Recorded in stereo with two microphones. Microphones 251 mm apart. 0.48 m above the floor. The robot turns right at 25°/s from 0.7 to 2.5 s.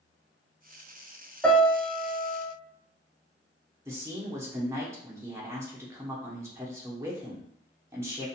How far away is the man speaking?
About 0.8 m.